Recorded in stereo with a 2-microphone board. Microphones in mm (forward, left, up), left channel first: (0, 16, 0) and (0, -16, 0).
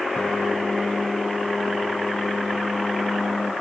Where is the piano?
20° left (ahead or behind), 3.5 m.